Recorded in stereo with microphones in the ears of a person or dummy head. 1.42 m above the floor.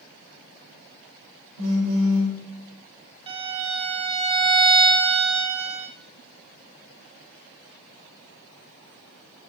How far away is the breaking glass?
No breaking glass in this recording.